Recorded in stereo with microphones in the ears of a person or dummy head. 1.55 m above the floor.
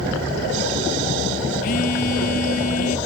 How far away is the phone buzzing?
About 1.2 m.